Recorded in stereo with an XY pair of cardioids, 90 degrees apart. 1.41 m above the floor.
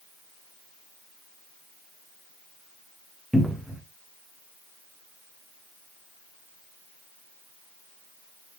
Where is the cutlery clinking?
No cutlery clinking in this recording.